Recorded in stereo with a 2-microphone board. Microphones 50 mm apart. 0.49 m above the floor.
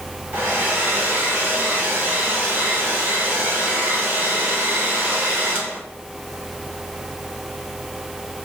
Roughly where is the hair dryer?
Right.